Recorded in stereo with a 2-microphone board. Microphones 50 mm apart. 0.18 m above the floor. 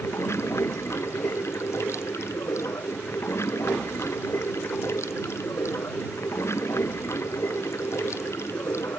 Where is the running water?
60° left (ahead or behind).